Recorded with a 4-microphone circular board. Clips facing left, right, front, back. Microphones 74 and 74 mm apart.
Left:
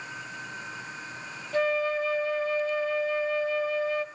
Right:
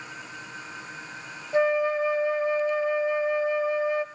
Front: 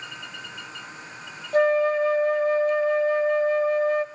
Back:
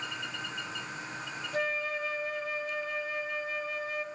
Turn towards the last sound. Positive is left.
turn(degrees=-25)